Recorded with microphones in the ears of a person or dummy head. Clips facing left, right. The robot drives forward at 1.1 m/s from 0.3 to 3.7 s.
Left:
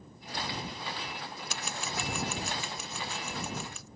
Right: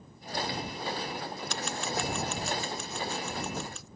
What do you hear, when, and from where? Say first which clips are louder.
1.5 s scissors: right 4 dB; centre (ahead or behind)